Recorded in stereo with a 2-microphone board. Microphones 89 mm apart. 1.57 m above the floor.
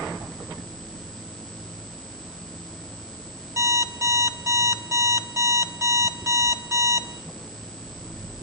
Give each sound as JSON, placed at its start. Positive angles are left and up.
{"t": 3.6, "sound": "an alarm clock", "side_deg": -35, "distance_m": 1.5}